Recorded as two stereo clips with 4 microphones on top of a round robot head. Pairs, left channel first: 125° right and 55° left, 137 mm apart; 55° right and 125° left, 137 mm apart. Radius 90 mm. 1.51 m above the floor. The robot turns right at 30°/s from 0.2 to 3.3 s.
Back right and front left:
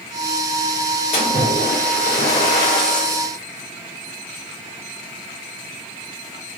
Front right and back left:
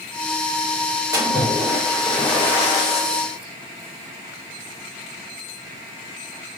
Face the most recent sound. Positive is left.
turn(degrees=-100)